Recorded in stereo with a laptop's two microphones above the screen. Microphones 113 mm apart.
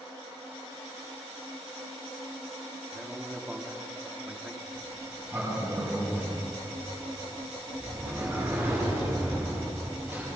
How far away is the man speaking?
About 2.5 m.